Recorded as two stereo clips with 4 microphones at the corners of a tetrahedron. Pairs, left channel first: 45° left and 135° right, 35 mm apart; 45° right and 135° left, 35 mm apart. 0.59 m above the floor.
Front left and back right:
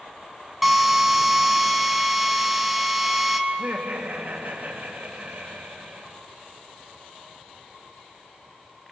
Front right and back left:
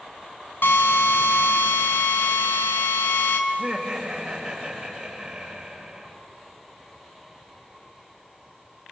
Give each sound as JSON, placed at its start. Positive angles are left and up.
{"t": 0.6, "sound": "a drill", "azimuth_deg": -50, "distance_m": 3.0}
{"t": 3.5, "sound": "laughter", "azimuth_deg": -155, "distance_m": 2.5}